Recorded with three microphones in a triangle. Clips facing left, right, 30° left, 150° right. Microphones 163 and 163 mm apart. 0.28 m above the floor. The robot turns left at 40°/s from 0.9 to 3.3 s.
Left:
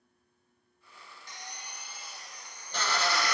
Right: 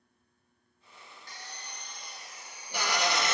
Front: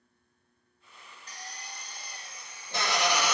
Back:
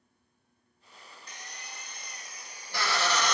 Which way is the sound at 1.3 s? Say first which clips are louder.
Left 1 dB, front 3 dB; 40° left.